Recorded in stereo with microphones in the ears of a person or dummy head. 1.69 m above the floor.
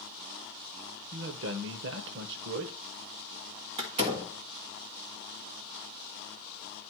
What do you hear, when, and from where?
1.1 s a man speaking: 65° right (ahead or behind), 1.0 m
3.8 s a door slam: 35° right (ahead or behind), 1.9 m